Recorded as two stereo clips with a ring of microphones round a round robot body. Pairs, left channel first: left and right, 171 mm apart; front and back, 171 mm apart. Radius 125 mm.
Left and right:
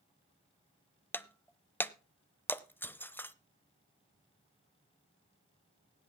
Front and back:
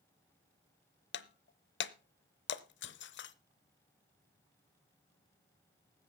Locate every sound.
1.1 s breaking glass: 10° left, 0.7 m